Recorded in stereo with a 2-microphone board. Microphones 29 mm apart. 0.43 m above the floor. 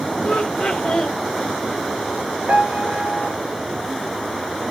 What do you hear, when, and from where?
0.2 s laughter: 45° left (ahead or behind), 1.2 m
2.5 s a piano: 70° right (ahead or behind), 1.3 m